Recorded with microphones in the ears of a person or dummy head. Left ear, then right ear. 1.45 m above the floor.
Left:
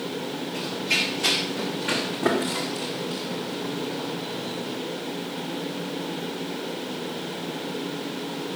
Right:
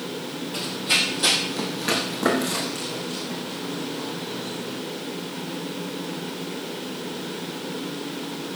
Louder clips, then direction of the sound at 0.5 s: Right 3 dB; 50° right (ahead or behind).